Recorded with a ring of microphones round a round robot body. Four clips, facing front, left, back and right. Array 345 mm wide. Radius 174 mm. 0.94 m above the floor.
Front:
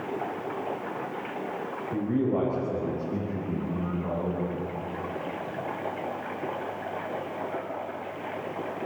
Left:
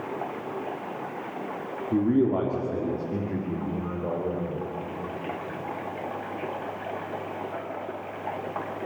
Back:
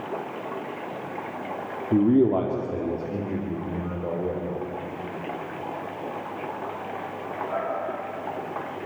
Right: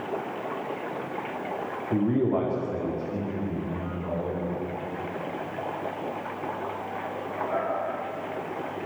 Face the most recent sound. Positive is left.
turn(degrees=130)